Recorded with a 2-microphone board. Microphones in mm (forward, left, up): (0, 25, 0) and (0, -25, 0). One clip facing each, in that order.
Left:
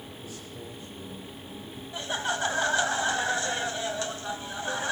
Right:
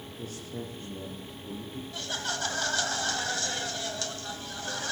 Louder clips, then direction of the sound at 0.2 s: Right 6 dB; 50° right (ahead or behind).